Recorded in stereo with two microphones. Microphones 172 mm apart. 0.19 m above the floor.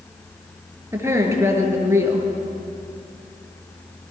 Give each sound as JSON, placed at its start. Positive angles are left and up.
{"t": 0.9, "sound": "a woman speaking", "side_deg": -15, "distance_m": 4.0}